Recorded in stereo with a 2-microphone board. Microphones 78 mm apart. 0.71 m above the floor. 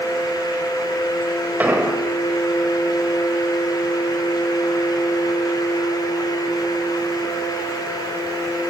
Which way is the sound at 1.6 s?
20° right (ahead or behind).